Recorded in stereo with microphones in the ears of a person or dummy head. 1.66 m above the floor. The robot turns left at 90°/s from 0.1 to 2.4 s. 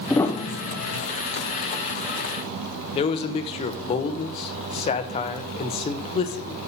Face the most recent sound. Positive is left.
turn(degrees=35)  # may be behind; listen again after turning